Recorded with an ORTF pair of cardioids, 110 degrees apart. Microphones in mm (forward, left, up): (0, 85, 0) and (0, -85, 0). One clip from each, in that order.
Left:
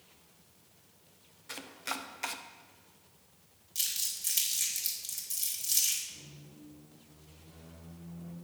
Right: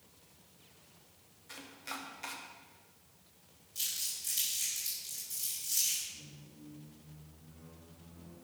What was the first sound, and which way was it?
Chopping, 40° left.